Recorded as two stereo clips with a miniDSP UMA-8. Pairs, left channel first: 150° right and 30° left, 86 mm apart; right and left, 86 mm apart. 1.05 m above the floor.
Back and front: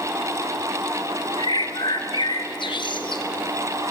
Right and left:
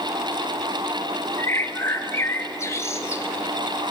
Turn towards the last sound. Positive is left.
turn(degrees=-145)